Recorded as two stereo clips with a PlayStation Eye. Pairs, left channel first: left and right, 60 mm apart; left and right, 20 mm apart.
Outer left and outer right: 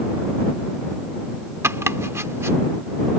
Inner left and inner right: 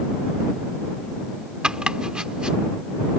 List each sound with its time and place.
1.6 s chopping: 45° right (ahead or behind)